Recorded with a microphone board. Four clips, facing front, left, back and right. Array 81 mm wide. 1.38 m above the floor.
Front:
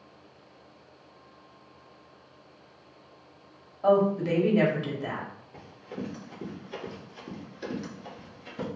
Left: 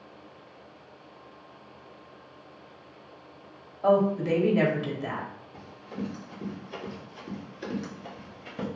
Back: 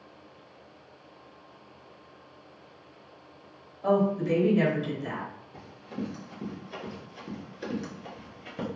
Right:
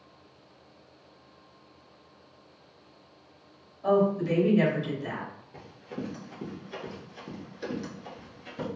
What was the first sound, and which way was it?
A woman speaking, 55° left.